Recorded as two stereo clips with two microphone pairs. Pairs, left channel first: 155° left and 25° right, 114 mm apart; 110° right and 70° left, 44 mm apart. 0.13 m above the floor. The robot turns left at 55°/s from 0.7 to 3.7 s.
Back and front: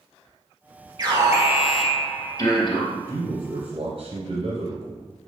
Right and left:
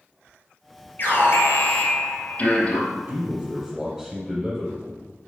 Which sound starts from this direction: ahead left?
A man speaking, at 2.9 s.